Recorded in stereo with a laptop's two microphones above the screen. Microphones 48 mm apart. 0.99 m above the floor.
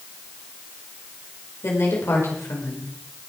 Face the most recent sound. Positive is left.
turn(degrees=75)  # may be behind; listen again after turning